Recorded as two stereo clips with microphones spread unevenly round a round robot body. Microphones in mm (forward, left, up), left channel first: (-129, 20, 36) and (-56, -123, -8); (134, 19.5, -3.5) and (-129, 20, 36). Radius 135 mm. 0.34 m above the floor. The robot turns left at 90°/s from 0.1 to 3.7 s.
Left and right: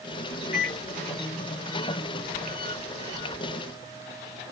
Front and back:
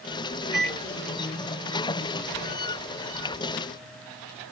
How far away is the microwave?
About 2.5 m.